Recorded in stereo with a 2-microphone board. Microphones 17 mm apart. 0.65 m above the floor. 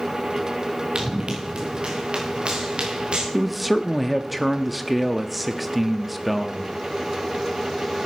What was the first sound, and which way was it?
Running footsteps, 75° right (ahead or behind).